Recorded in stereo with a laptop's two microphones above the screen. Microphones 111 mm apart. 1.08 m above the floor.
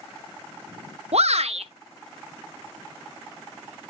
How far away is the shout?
About 1.0 m.